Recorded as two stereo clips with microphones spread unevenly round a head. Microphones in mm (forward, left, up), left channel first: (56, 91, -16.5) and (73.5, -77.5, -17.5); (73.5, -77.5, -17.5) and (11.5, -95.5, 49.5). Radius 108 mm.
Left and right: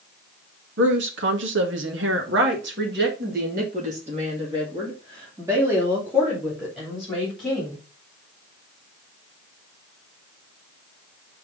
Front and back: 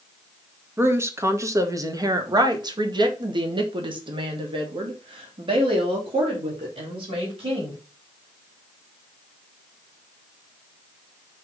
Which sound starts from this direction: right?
A woman speaking, at 0.8 s.